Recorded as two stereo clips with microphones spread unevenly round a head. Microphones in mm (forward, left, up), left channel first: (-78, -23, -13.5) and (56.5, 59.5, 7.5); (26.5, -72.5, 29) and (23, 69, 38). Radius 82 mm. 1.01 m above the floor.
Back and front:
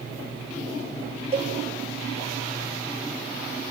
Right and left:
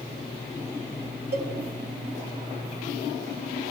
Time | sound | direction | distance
1.3 | a cowbell | 85° left | 3.5 m